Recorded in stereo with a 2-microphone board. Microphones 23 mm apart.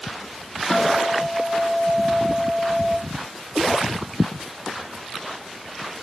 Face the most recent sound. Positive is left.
turn(degrees=10)  # may be behind; listen again after turning